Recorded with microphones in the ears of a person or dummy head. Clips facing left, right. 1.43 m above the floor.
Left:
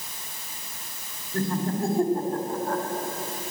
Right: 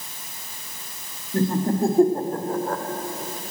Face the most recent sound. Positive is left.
turn(degrees=-60)  # may be behind; listen again after turning